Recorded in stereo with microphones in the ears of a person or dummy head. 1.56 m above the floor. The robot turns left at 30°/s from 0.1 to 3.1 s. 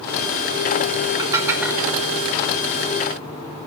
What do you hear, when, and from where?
1.2 s dishes clattering: 20° right (ahead or behind), 2 m; by 1.8 s centre (ahead or behind), 2 m